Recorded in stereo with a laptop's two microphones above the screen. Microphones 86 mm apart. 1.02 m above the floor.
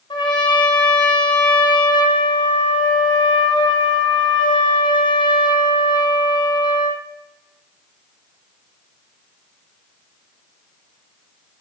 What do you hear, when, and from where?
0.1 s a trumpet: 65° left (ahead or behind), 0.7 m